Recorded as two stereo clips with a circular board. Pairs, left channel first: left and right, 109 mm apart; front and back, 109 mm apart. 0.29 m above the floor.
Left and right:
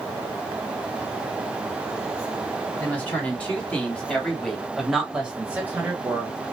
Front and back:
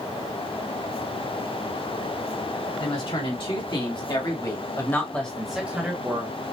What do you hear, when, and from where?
2.8 s a woman speaking: 15° left, 2.5 m; by 6.4 s 145° right, 1.5 m